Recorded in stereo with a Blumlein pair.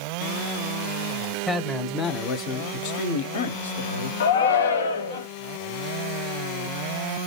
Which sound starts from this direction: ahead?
A man speaking, at 1.5 s.